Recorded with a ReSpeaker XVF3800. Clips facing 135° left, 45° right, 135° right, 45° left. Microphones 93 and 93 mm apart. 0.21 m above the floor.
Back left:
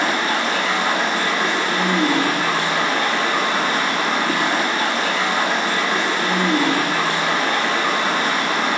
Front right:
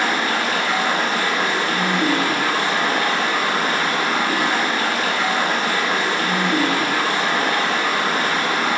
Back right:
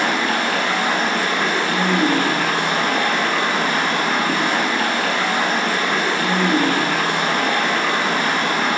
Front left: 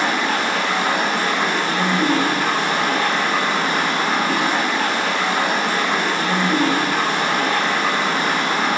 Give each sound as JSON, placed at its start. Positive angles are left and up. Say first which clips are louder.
{"t": 0.0, "sound": "running water", "louder": "even, even", "azimuth_deg": -165, "distance_m": 2.5}